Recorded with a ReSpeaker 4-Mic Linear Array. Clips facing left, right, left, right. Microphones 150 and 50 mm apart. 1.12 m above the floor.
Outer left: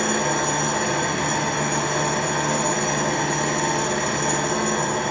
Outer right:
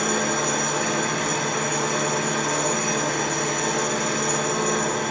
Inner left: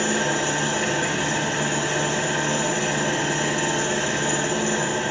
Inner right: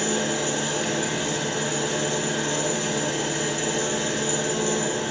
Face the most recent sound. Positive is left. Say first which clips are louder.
# outer left 1 dB, inner left 3 dB
turn(degrees=60)  # may be behind; listen again after turning